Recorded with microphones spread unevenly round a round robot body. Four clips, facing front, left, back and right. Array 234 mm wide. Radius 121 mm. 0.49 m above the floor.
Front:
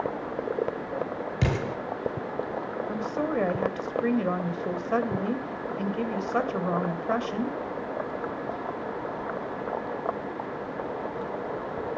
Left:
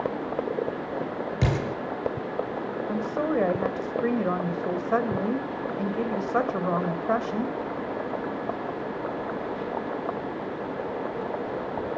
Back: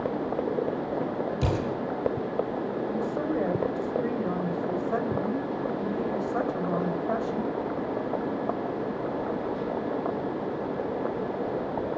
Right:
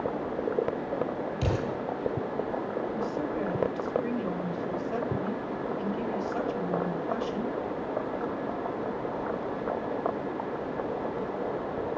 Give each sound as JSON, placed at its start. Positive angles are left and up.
{"t": 1.4, "sound": "an explosion", "azimuth_deg": 40, "distance_m": 10.0}
{"t": 2.9, "sound": "a woman speaking", "azimuth_deg": 60, "distance_m": 2.5}